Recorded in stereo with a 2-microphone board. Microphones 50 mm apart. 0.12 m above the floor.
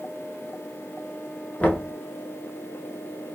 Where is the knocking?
30° left (ahead or behind), 0.9 m.